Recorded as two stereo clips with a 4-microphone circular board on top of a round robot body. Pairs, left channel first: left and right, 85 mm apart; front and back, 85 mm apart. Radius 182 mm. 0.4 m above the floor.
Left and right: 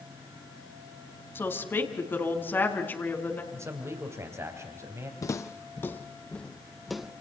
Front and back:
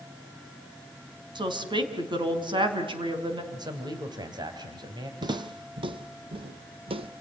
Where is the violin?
No violin in this recording.